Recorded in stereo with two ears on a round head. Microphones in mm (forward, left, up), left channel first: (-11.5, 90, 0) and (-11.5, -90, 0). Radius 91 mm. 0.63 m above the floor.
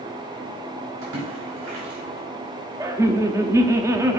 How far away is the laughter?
About 0.7 m.